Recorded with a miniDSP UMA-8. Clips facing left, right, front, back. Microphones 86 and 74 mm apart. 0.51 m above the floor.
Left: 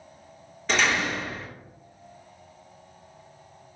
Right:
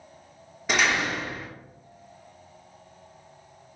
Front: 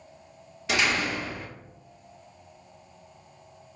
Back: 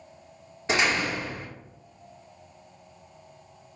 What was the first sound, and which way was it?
A door slam, 155° right.